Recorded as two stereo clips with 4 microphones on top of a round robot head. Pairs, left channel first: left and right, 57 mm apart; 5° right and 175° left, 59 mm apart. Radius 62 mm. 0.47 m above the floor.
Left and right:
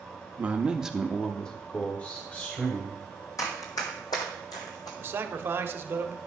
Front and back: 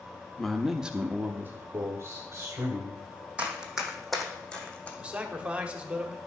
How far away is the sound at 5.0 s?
About 1.1 m.